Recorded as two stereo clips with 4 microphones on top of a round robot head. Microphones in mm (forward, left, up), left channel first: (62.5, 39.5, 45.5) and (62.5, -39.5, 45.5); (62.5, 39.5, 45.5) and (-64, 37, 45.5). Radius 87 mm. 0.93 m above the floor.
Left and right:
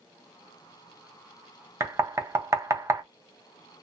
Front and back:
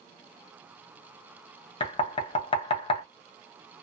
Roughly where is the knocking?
Ahead right.